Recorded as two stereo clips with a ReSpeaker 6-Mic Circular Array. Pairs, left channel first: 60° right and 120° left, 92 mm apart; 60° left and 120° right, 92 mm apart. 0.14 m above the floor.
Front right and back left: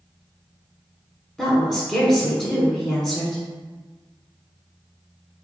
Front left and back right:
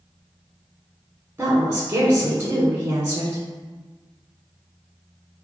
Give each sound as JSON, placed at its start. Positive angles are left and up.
{"t": 1.4, "sound": "a woman speaking", "azimuth_deg": -130, "distance_m": 1.2}